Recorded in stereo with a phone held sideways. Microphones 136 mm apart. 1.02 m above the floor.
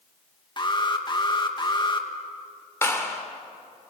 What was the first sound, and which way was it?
An alarm, 35° left (ahead or behind).